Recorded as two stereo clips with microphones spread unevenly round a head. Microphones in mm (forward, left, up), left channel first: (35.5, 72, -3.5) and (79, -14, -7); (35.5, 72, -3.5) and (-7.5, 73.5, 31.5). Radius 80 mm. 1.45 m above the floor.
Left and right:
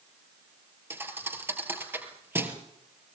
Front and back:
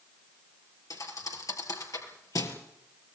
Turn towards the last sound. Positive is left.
turn(degrees=5)